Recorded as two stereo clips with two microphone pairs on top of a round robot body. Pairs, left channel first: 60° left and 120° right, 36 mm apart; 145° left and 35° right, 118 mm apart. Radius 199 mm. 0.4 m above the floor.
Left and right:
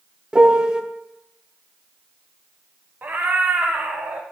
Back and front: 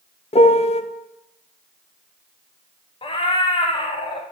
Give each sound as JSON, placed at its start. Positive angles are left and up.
{"t": 0.3, "sound": "a piano", "azimuth_deg": 170, "distance_m": 0.9}
{"t": 3.0, "sound": "a cat meowing", "azimuth_deg": -165, "distance_m": 0.7}